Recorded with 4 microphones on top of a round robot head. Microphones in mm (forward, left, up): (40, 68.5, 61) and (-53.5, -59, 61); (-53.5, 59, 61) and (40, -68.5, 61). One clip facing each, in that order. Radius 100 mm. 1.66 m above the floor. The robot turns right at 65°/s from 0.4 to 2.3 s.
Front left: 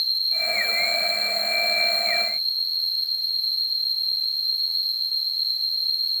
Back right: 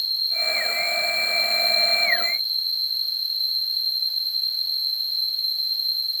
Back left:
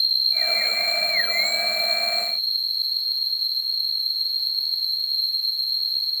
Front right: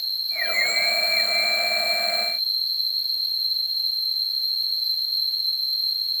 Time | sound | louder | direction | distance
0.0 | an insect | even, even | 170° left | 2 m